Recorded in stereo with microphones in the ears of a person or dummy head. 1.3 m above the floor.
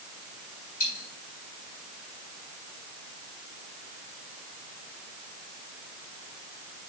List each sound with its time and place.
0.8 s a dropped coin: 50° left (ahead or behind), 3.5 m